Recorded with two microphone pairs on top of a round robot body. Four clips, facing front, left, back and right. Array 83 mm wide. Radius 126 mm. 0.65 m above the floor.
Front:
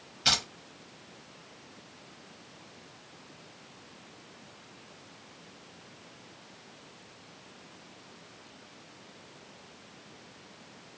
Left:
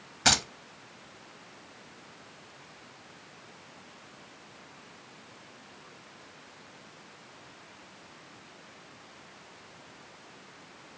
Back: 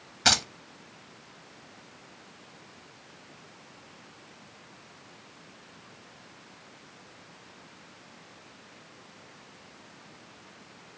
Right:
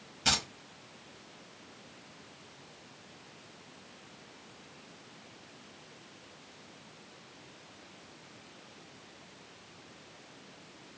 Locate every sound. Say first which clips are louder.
0.2 s keys jangling: left 6 dB, back 5 dB; 135° left, 1.1 m